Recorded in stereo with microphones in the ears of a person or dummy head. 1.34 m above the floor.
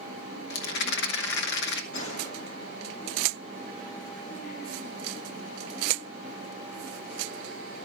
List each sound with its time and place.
0.5 s a rattle: 70° left (ahead or behind), 1.0 m
1.9 s a gunshot: 85° left, 1.5 m